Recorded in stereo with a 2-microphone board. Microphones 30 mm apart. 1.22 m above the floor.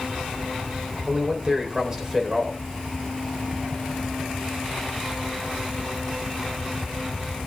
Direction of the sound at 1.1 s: 20° right (ahead or behind).